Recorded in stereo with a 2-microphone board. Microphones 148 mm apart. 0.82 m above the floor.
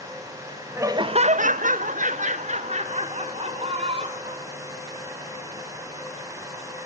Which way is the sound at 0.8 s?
15° right (ahead or behind).